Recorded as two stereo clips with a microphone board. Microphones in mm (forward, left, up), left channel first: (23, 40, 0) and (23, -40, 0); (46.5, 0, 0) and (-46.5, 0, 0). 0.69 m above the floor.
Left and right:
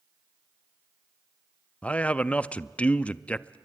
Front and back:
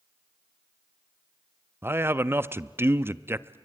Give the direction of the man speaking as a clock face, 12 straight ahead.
7 o'clock.